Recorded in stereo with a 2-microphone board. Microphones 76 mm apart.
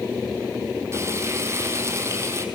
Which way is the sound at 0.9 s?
35° right (ahead or behind).